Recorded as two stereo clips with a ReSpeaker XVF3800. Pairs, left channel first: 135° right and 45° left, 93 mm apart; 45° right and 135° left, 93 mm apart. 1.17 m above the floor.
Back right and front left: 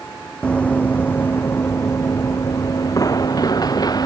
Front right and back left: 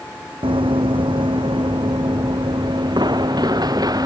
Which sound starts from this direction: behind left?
Running footsteps, at 0.4 s.